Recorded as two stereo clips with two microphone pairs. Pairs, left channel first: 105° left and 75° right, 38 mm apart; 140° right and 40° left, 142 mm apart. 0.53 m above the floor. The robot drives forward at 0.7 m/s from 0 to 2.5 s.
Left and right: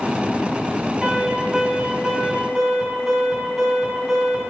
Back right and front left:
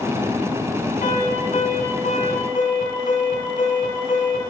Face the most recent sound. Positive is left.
turn(degrees=-155)